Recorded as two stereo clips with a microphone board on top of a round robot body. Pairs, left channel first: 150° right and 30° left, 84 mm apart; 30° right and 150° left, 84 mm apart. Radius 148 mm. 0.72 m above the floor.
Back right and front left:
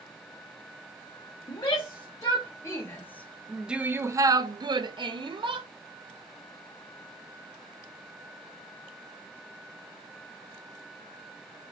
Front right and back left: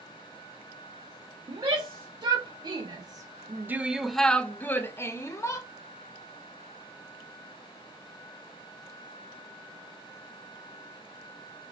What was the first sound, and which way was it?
A shout, 175° left.